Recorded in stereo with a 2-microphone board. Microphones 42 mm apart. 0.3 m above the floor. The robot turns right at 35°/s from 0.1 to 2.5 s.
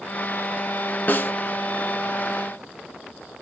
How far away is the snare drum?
About 0.6 m.